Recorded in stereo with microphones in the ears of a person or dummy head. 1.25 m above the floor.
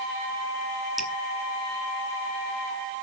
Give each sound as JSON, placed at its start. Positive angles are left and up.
{"t": 1.0, "sound": "dripping", "side_deg": -5, "distance_m": 1.3}